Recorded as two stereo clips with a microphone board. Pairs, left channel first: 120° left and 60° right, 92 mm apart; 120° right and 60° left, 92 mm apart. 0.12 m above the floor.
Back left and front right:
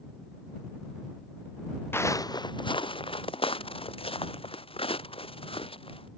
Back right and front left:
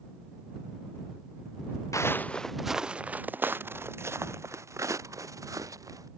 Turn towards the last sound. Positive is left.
turn(degrees=110)